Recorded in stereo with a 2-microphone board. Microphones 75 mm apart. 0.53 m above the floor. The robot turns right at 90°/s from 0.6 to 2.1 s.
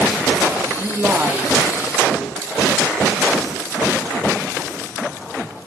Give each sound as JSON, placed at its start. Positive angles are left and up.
{"t": 0.8, "sound": "a woman speaking", "side_deg": -20, "distance_m": 0.8}